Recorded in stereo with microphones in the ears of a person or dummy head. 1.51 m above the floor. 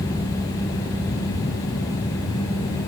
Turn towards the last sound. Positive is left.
No sound to turn to.